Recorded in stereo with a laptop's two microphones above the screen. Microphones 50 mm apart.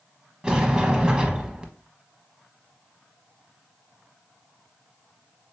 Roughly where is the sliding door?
Centre.